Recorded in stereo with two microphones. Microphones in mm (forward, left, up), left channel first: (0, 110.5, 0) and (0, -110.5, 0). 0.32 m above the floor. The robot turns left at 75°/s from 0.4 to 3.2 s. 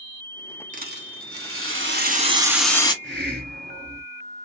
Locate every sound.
0.7 s a rattle: 35° right, 1.1 m; by 2.9 s 160° left, 1.1 m
3.0 s a hiss: 60° right (ahead or behind), 1.2 m; by 4.0 s 50° right (ahead or behind), 1.2 m